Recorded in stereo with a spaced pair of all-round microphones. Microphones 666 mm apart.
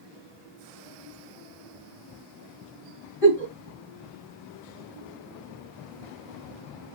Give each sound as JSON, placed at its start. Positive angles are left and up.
{"t": 3.2, "sound": "a giggle", "side_deg": -50, "distance_m": 2.5}